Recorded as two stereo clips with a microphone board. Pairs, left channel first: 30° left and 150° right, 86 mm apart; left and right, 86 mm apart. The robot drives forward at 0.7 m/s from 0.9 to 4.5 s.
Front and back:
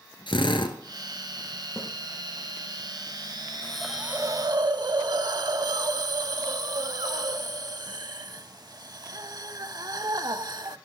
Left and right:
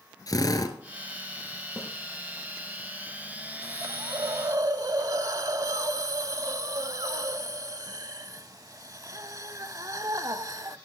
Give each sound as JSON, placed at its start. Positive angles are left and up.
{"t": 0.3, "sound": "a drill", "azimuth_deg": 45, "distance_m": 1.6}
{"t": 1.8, "sound": "a snare drum", "azimuth_deg": -25, "distance_m": 4.5}
{"t": 3.6, "sound": "a hiss", "azimuth_deg": -45, "distance_m": 0.6}